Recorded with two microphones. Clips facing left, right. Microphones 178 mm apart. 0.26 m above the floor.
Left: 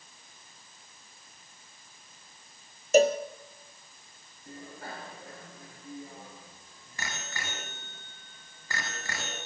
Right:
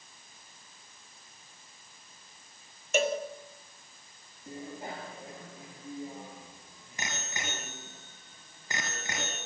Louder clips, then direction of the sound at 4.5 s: Right 3 dB; 20° right (ahead or behind).